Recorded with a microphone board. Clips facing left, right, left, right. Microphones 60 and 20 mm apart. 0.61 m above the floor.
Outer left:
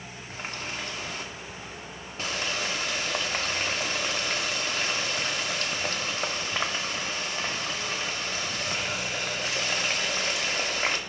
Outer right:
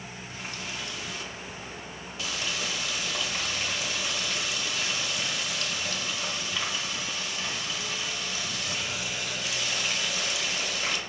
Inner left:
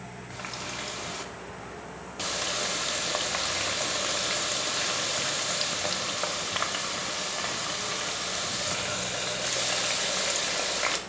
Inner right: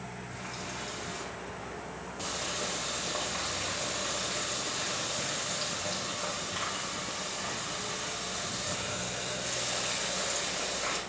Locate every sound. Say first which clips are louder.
0.3 s a running tap: outer left 3 dB, inner left 5 dB; 45° left (ahead or behind), 0.7 m